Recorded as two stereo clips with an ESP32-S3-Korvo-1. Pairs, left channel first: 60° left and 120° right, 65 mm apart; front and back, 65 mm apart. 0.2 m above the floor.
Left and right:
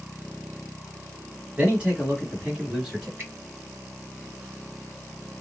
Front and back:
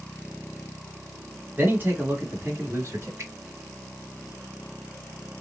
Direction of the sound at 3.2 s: 165° right.